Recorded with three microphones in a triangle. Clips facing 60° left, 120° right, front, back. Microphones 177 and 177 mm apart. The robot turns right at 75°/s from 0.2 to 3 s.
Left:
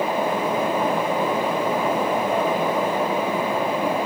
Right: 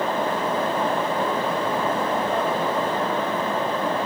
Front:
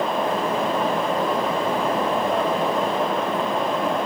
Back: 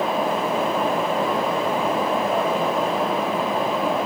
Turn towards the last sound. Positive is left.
No sound to turn to.